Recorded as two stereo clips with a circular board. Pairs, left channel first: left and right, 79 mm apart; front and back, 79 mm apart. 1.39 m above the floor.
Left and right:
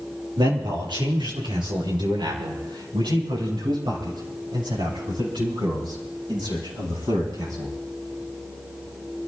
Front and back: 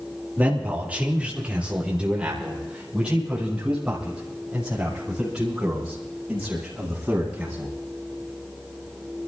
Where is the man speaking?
110° right, 2.5 m; by 7.7 s 100° right, 12 m.